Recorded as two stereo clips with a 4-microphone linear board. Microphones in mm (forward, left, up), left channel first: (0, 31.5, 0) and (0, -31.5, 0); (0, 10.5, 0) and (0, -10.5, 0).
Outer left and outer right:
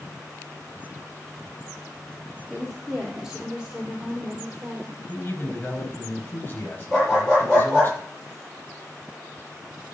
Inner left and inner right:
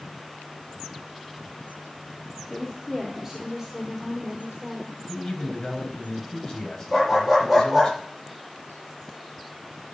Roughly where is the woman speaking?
Centre.